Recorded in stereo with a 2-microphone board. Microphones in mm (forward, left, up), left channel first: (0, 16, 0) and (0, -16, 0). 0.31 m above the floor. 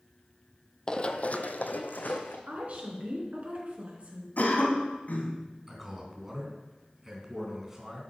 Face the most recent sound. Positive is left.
turn(degrees=-15)  # may be behind; listen again after turning